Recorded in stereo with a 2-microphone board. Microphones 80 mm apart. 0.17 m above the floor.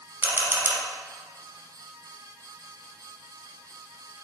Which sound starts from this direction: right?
A camera shutter, at 0.2 s.